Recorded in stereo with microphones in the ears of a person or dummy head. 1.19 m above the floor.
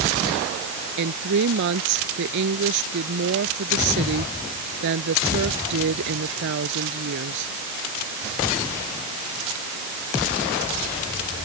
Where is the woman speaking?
65° right (ahead or behind).